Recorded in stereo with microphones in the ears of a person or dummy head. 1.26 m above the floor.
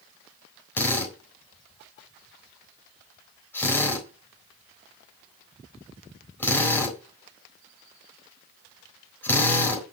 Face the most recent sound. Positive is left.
turn(degrees=15)  # may be behind; listen again after turning